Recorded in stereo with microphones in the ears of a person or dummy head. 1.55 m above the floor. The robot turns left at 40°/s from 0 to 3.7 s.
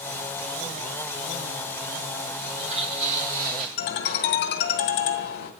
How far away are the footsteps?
About 3.5 m.